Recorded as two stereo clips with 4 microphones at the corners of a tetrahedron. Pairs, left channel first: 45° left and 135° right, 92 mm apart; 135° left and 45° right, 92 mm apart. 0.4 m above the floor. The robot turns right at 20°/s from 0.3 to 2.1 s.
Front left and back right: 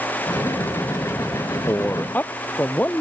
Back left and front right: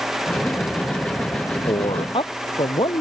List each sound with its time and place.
1.7 s a man speaking: 105° left; by 3.0 s 115° left